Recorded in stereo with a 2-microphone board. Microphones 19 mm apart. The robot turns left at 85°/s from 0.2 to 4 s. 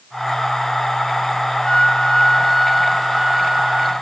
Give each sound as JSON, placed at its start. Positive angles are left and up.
{"t": 1.6, "sound": "a flute", "azimuth_deg": 110, "distance_m": 2.0}